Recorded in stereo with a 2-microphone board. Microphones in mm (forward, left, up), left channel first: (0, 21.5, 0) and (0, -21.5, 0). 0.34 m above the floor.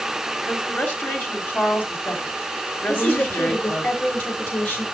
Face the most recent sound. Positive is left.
turn(degrees=45)  # may be behind; listen again after turning